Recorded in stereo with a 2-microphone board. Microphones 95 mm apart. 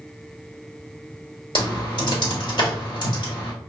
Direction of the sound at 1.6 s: 60° left (ahead or behind).